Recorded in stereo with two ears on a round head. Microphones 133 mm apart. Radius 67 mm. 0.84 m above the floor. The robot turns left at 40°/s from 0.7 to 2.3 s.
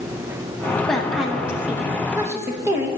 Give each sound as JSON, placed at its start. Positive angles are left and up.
{"t": 0.9, "sound": "a woman speaking", "side_deg": 5, "distance_m": 0.9}